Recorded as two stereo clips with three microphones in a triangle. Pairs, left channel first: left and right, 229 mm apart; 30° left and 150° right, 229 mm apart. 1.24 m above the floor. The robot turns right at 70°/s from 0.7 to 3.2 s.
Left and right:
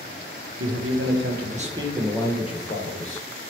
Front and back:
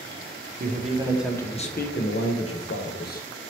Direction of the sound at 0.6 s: 100° right.